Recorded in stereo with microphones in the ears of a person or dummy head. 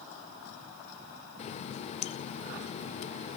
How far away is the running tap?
About 0.5 m.